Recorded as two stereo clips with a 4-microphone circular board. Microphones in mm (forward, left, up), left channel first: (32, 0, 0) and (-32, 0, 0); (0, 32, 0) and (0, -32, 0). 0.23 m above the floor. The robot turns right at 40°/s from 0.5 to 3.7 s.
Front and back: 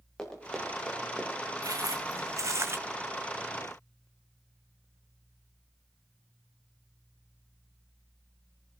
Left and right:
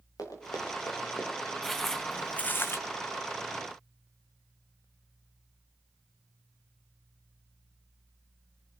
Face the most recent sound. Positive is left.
turn(degrees=170)